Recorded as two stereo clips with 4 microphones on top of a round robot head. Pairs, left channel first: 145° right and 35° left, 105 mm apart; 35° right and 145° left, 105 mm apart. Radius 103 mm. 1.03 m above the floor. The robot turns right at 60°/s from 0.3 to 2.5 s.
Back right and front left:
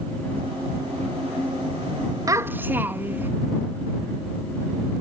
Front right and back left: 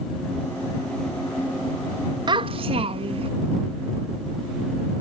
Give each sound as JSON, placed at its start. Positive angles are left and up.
{"t": 2.3, "sound": "a child speaking", "azimuth_deg": 95}